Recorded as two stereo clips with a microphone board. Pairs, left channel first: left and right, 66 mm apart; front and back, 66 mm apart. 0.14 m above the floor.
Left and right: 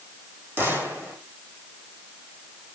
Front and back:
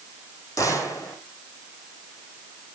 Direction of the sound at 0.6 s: 35° right.